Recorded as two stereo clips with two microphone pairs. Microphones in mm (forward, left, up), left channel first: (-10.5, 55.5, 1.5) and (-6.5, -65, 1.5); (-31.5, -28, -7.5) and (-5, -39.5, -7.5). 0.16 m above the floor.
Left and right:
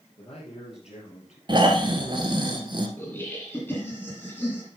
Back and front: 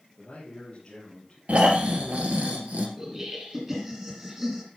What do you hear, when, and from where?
0.2 s a man speaking: 115° left, 3.5 m; by 1.4 s 95° left, 3.5 m
1.5 s snoring: 40° right, 1.5 m
3.0 s laughter: 35° left, 2.0 m